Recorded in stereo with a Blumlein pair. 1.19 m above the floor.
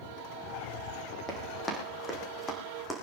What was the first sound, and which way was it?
Running footsteps, 20° left.